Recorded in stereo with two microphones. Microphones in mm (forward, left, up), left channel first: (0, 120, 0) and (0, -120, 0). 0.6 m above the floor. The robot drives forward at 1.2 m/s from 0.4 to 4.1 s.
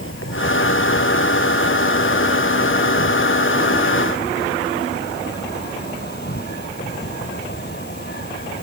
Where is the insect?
60° left (ahead or behind); by 8.6 s 45° left (ahead or behind).